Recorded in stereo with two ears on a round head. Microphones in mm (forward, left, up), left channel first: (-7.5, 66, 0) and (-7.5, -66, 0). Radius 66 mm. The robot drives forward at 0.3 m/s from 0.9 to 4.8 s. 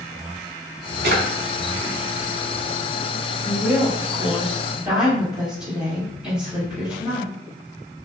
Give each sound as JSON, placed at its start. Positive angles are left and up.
{"t": 1.0, "sound": "a drawer", "side_deg": -70, "distance_m": 0.7}
{"t": 3.5, "sound": "a woman speaking", "side_deg": -10, "distance_m": 1.1}